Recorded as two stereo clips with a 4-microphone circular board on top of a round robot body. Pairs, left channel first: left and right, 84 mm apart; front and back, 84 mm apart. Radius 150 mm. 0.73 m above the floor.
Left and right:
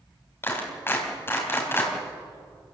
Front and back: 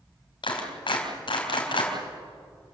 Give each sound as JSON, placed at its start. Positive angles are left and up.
{"t": 0.4, "sound": "a clap", "azimuth_deg": 25, "distance_m": 4.0}